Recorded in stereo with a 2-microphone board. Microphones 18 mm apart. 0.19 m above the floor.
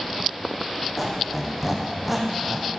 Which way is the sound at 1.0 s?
10° right (ahead or behind).